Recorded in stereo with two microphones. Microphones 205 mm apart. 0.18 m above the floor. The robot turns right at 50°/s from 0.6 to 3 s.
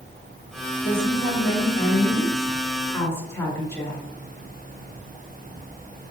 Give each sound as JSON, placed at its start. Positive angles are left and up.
{"t": 0.8, "sound": "a woman speaking", "azimuth_deg": 55, "distance_m": 2.0}